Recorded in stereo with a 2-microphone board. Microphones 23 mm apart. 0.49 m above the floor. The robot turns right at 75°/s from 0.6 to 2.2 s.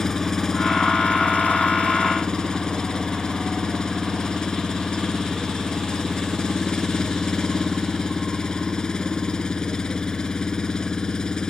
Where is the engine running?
30° left; by 11.5 s 150° left.